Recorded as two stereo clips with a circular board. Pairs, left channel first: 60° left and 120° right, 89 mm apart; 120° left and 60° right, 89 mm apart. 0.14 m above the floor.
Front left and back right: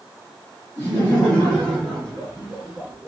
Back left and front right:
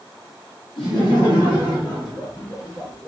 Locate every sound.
0.8 s laughter: 120° left, 2 m; by 3.1 s 165° left, 1.7 m